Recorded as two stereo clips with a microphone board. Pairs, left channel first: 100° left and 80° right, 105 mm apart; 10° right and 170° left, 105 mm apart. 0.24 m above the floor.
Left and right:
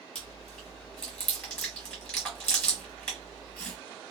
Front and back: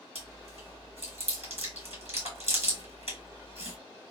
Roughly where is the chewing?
Behind.